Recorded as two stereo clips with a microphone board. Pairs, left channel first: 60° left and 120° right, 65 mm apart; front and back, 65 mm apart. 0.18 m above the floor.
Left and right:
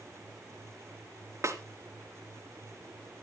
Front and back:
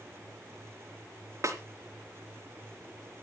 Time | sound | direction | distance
1.4 | a snare drum | 155° right | 3 m